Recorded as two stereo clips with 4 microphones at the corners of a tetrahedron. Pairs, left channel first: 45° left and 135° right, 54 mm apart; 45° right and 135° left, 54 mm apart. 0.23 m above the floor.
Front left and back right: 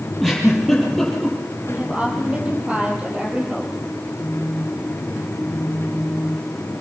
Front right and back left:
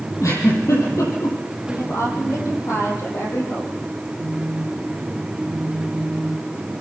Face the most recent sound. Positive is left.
turn(degrees=110)